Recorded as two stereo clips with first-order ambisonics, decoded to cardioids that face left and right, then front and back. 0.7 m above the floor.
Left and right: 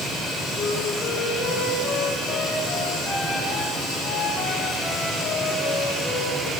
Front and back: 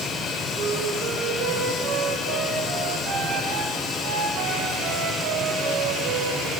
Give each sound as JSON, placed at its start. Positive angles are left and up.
{"t": 0.6, "sound": "a flute", "azimuth_deg": 155, "distance_m": 5.0}